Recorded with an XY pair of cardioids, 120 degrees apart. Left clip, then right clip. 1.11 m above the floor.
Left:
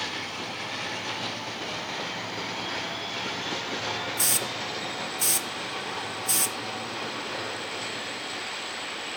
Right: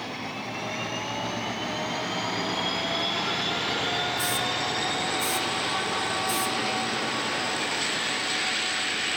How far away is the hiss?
About 0.5 m.